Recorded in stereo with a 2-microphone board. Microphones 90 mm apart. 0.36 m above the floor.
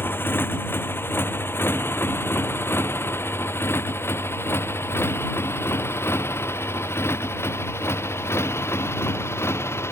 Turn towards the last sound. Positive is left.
turn(degrees=30)  # may be behind; listen again after turning